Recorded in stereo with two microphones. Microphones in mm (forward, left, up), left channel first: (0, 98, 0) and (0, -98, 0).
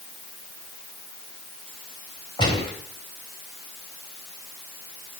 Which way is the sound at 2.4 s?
20° left (ahead or behind).